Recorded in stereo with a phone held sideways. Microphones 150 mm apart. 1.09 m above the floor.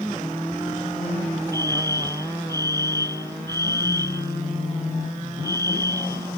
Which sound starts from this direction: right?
A fire alarm, at 1.5 s.